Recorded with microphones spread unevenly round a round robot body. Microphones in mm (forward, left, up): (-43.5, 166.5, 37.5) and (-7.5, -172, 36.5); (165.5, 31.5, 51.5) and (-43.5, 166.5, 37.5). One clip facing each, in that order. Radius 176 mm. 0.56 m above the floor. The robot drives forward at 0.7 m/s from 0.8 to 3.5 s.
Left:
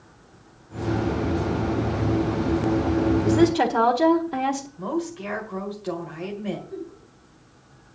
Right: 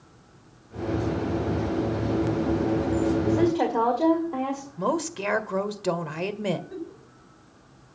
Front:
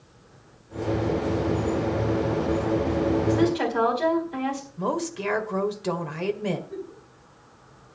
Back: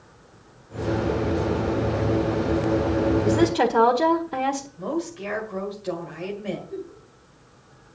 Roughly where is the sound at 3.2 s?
Behind left.